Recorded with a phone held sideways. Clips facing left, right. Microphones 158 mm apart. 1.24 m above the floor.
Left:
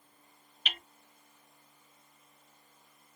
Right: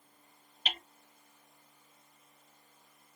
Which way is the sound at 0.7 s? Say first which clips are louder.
Right 3 dB; 30° right (ahead or behind).